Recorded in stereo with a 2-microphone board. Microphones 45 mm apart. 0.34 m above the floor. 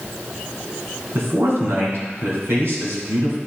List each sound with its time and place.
1.1 s a man speaking: 70° right (ahead or behind), 2.5 m